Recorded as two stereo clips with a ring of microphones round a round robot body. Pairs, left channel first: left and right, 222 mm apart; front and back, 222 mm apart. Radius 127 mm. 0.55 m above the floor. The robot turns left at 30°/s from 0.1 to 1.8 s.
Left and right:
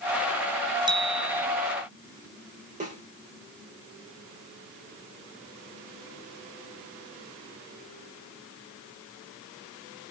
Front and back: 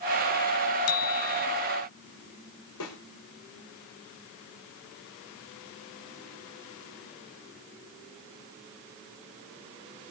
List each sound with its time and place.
0.9 s a bicycle bell: 20° right, 2.5 m; by 1.5 s 35° right, 2.5 m
2.8 s a snare drum: 35° right, 5.5 m